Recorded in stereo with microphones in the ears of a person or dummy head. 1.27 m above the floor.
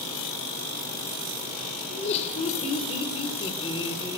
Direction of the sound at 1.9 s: 35° left (ahead or behind).